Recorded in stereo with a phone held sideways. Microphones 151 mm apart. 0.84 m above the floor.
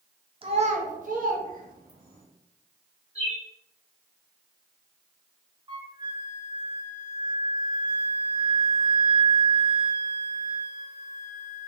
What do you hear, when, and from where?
0.4 s a child speaking: 35° right (ahead or behind), 0.5 m; by 2.2 s 65° right (ahead or behind), 1.5 m
3.1 s a bird: 45° right (ahead or behind), 1.1 m
5.7 s a flute: 30° right (ahead or behind), 0.6 m